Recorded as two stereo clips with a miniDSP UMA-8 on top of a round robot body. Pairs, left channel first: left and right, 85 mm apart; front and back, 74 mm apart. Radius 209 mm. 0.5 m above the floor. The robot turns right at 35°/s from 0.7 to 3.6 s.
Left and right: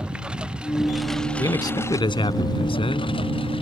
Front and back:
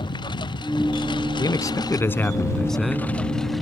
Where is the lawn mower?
10° right; by 3.6 s 90° left.